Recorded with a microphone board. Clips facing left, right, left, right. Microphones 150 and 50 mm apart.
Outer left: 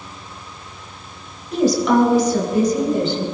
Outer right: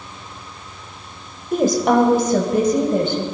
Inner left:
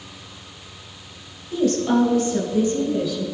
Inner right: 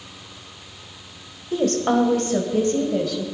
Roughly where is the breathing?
I don't hear breathing.